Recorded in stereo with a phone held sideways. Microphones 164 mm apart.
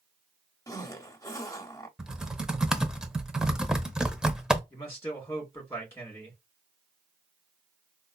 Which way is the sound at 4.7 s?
15° left (ahead or behind).